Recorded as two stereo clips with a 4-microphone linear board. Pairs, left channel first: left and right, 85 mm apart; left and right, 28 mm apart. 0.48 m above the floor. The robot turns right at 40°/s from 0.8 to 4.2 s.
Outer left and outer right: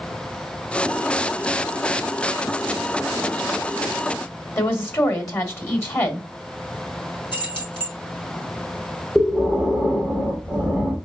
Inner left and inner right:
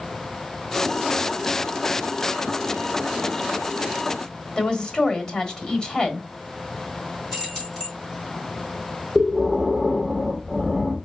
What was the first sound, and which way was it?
A woman speaking, 30° left (ahead or behind).